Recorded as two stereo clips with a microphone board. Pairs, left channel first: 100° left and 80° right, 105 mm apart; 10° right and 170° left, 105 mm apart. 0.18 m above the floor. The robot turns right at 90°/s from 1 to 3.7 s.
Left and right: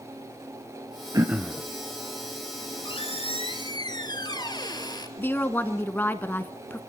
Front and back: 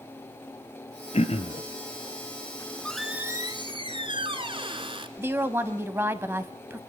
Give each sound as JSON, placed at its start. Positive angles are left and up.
{"t": 1.1, "sound": "throat clearing", "azimuth_deg": -20, "distance_m": 1.3}
{"t": 2.6, "sound": "a squeak", "azimuth_deg": 45, "distance_m": 1.5}
{"t": 5.2, "sound": "a woman speaking", "azimuth_deg": 140, "distance_m": 1.1}